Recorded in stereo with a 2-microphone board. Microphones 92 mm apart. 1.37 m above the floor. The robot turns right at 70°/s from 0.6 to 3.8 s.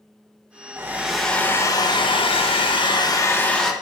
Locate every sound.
0.8 s a hair dryer: 30° right, 1.3 m; by 3.7 s straight behind, 1.3 m